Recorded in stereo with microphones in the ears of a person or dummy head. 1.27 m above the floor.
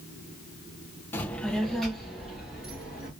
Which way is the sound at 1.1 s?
10° left (ahead or behind).